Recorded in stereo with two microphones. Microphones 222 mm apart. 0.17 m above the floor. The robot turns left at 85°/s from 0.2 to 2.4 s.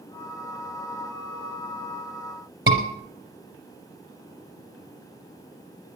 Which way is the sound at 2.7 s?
60° right (ahead or behind).